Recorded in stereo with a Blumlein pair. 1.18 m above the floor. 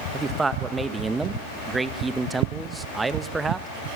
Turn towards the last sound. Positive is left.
turn(degrees=-10)